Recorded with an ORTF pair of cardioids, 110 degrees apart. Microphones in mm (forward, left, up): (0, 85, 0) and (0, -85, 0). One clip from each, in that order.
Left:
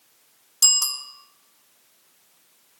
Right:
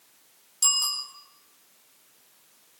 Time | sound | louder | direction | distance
0.6 | a bicycle bell | left 4 dB | 40° left | 4.5 m